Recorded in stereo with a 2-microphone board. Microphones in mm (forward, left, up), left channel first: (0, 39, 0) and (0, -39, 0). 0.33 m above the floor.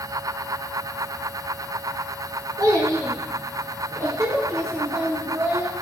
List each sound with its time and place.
2.6 s a child speaking: 55° right (ahead or behind), 3 m; by 5.7 s 35° right (ahead or behind), 4.5 m